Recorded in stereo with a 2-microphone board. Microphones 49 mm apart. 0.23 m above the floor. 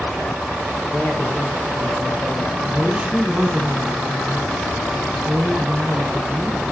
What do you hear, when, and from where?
0.9 s a woman speaking: 30° left (ahead or behind), 2.5 m; by 2.5 s 50° left (ahead or behind), 3 m
2.6 s a woman speaking: 20° right (ahead or behind), 2 m